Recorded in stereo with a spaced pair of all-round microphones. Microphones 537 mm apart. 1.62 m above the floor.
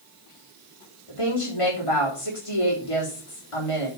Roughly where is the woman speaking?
Left.